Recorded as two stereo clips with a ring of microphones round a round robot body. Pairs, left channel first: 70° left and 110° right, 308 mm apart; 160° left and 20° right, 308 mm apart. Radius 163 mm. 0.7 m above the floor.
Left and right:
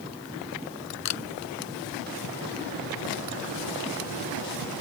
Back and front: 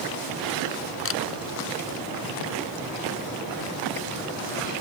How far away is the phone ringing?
No phone ringing in this recording.